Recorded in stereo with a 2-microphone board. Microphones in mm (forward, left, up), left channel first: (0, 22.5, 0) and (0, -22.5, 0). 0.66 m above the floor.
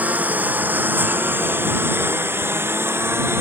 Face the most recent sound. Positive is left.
turn(degrees=-70)  # may be behind; listen again after turning